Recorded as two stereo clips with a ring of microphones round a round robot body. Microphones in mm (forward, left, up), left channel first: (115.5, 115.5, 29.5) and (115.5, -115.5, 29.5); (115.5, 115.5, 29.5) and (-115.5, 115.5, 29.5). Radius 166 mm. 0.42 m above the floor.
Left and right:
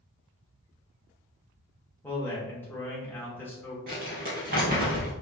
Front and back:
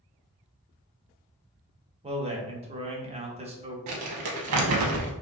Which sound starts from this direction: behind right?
Crumpling, at 3.9 s.